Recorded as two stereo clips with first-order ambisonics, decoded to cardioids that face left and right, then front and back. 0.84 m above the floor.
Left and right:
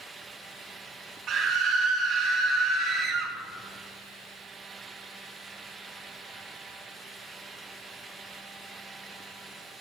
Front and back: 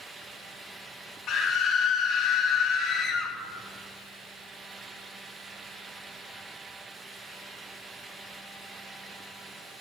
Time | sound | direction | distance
1.3 | a scream | 40° right | 1.3 m